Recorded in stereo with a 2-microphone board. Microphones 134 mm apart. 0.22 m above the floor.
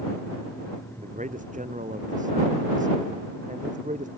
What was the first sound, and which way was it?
A man speaking, 65° right (ahead or behind).